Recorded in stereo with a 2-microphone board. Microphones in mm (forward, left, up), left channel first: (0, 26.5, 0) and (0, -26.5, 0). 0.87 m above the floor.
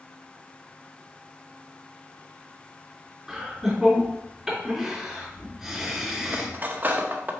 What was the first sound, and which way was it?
Laughter, 10° right (ahead or behind).